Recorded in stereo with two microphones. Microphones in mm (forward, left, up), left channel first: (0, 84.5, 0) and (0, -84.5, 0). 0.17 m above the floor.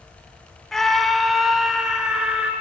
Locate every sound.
0.7 s a scream: centre (ahead or behind), 1.0 m; by 2.5 s 5° right (ahead or behind), 1.8 m